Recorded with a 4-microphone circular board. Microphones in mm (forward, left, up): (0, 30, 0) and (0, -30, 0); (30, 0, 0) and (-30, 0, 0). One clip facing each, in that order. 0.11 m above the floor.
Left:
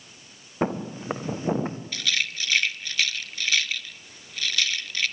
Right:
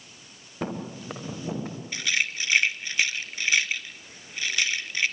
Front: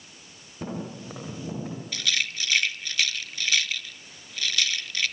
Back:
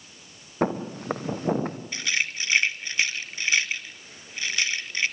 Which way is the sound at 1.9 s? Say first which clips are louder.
Right 4 dB, even; 140° right.